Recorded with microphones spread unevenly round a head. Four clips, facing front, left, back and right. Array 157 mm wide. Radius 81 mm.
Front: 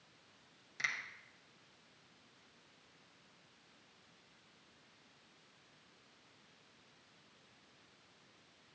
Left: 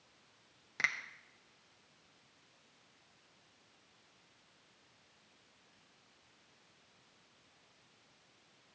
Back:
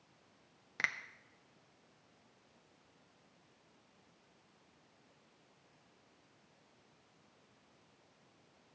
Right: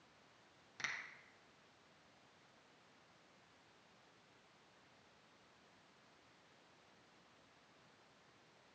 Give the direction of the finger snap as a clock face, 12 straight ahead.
7 o'clock.